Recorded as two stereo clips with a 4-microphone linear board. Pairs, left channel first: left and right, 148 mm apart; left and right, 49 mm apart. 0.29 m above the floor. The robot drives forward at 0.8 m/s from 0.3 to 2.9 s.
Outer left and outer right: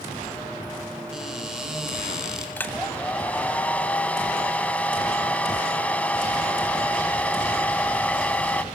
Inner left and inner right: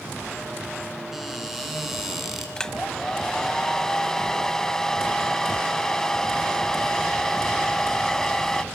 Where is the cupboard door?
5° right (ahead or behind), 4.5 m.